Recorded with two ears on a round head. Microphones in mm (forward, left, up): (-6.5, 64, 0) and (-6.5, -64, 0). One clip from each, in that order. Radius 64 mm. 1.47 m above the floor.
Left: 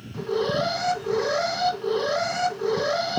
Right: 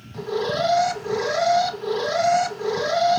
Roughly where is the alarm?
Right.